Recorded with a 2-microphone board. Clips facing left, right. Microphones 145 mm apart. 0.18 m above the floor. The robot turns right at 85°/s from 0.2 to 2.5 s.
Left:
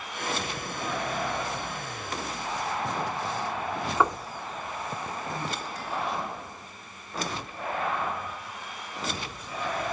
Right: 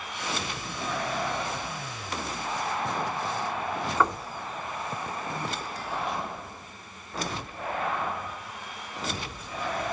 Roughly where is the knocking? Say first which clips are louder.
Left 1 dB; centre.